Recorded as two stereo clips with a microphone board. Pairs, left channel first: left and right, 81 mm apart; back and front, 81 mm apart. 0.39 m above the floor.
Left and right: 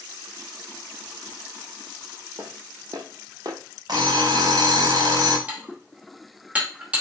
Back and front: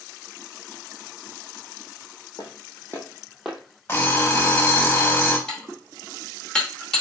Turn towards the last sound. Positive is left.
turn(degrees=-115)